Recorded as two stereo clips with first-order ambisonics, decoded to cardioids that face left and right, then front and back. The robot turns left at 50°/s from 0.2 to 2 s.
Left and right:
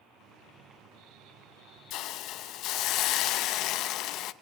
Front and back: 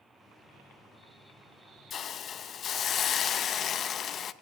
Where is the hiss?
60° left, 0.6 m; by 4.3 s 55° left, 0.6 m.